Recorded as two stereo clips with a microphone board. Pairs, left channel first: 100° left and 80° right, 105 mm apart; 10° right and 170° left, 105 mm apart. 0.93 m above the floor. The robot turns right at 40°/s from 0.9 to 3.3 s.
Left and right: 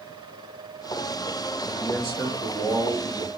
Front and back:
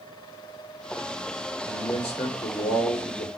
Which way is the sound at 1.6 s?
50° left.